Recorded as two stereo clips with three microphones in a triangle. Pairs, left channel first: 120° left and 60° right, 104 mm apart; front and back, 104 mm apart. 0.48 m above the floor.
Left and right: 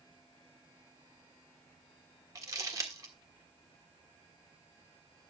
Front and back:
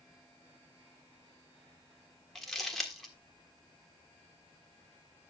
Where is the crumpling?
85° right, 1.4 m.